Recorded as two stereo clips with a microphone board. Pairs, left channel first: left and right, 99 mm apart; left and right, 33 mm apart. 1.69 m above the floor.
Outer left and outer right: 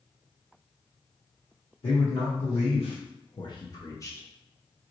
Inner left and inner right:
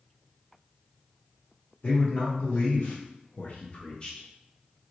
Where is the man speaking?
70° left (ahead or behind), 1.0 m; by 4.9 s 15° left (ahead or behind), 1.3 m.